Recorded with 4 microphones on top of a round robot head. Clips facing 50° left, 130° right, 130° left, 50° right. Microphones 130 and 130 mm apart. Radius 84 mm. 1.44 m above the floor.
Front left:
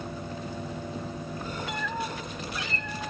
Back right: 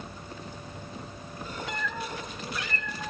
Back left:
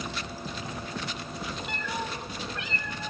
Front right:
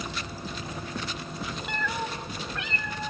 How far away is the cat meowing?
About 1.1 m.